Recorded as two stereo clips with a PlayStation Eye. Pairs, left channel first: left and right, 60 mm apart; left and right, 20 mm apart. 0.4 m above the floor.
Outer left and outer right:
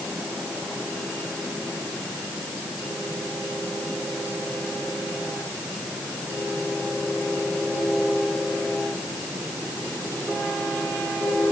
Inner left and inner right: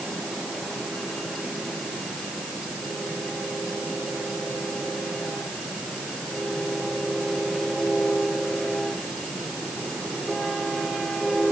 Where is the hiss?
I don't hear a hiss.